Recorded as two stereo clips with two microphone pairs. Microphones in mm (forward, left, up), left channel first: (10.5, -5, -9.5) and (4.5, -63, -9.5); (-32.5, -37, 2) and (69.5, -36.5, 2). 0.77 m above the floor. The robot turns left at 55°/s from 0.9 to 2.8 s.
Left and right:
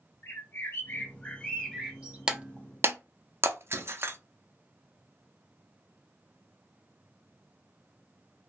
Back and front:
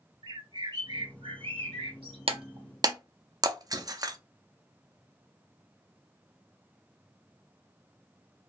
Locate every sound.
0.2 s a bird: 40° left, 1.2 m; by 2.2 s 30° right, 1.2 m
2.3 s breaking glass: 25° right, 0.5 m; by 4.2 s 55° right, 0.5 m